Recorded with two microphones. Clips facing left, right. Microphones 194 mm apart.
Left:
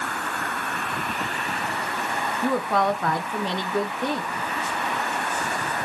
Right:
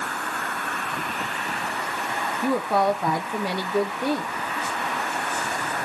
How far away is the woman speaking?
About 1.0 m.